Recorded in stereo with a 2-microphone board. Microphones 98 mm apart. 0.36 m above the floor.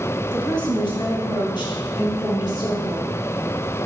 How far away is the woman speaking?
About 1.9 m.